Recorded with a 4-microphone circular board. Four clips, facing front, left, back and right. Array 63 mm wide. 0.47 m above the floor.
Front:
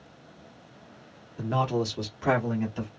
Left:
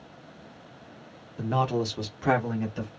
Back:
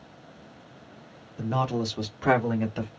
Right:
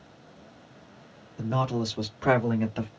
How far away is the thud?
I don't hear a thud.